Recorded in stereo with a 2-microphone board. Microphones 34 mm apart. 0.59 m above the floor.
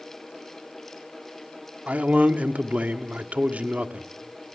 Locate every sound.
1.9 s a man speaking: 45° right (ahead or behind), 1.1 m